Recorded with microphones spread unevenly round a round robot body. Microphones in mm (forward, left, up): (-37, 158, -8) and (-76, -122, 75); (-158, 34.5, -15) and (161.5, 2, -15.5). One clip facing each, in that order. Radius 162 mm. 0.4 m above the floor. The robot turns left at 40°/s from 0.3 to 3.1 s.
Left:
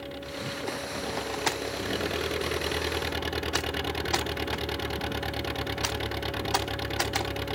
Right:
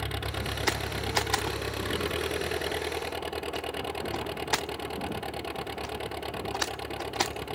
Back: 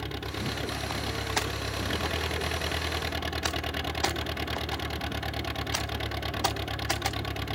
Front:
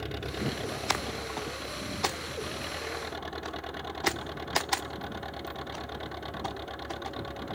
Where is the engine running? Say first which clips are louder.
Even, front 1 dB; 110° right; by 7.5 s 140° left.